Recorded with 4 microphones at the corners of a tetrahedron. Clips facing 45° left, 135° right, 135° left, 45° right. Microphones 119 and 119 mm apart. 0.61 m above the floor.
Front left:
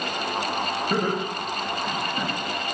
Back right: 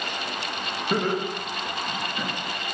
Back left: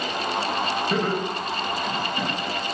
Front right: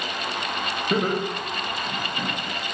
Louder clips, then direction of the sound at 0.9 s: Back right 3 dB, even; 40° right.